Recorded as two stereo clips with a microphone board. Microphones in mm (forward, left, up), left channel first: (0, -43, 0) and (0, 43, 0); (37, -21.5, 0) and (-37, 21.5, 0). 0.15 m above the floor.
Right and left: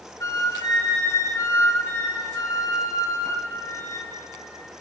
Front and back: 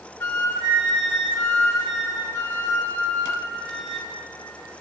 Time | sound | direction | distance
0.2 | a flute | 75° right | 2 m